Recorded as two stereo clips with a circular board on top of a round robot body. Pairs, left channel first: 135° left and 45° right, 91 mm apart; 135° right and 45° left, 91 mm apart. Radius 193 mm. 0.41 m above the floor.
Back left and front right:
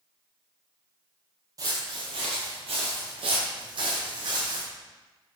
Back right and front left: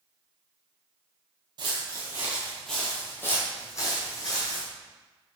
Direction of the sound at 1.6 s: 5° left.